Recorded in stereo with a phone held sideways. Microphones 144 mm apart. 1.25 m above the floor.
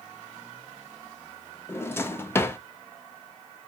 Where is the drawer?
15° left (ahead or behind), 0.5 m.